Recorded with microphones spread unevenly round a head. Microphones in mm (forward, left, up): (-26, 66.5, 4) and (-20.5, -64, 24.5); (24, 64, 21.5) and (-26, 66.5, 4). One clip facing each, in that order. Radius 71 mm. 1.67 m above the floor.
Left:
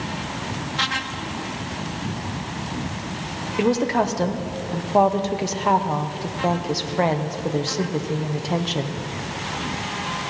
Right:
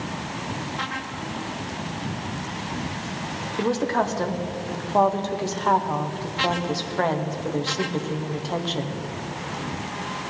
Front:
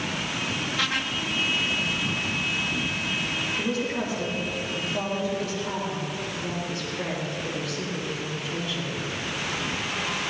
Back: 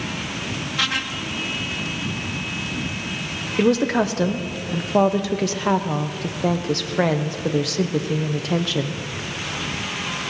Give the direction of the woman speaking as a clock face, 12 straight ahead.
6 o'clock.